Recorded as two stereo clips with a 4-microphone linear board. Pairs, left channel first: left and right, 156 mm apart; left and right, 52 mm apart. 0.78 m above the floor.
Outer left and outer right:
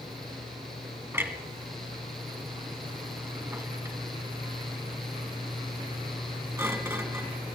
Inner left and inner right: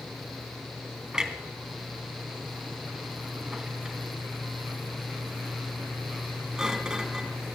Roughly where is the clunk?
Centre.